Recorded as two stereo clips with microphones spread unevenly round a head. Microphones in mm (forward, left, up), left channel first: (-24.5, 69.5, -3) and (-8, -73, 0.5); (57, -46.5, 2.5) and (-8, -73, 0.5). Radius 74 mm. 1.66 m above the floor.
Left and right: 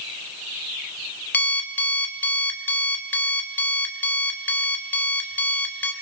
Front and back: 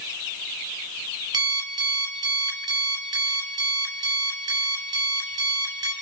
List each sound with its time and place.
1.3 s an alarm clock: 175° left, 2 m